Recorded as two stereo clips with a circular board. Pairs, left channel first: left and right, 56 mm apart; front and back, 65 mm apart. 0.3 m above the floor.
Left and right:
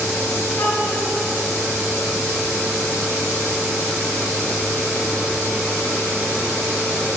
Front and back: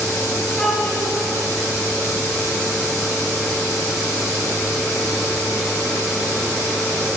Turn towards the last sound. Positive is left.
turn(degrees=70)